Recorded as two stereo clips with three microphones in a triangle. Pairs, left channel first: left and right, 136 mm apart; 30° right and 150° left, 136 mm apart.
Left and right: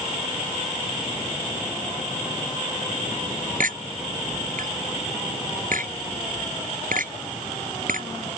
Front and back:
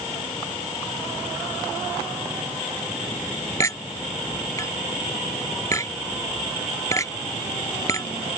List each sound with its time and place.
3.6 s a clink: 100° right